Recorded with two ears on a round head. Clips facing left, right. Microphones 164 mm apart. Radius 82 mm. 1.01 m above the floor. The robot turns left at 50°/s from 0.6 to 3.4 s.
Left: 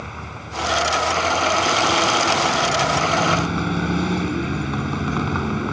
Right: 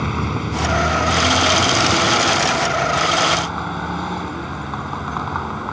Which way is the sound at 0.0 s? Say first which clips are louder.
Right 12 dB; 70° right.